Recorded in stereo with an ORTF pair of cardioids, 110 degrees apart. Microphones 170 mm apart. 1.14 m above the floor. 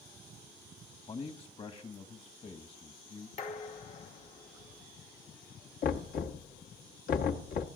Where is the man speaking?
35° left, 1.8 m.